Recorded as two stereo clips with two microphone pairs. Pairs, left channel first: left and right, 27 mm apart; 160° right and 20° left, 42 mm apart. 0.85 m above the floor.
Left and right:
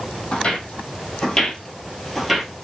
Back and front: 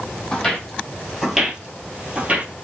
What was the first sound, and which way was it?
Footsteps, 125° left.